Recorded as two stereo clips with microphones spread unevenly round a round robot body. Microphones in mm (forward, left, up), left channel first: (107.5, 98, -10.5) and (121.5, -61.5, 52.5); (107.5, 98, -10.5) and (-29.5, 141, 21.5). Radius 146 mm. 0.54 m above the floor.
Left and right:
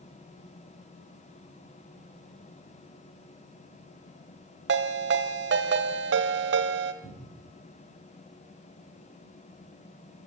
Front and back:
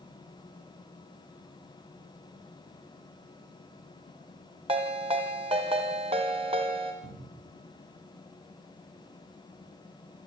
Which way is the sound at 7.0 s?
145° left.